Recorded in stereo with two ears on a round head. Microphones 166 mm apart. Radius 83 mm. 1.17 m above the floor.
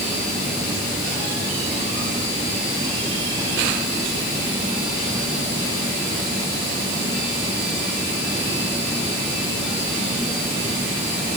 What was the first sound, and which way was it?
Only background noise.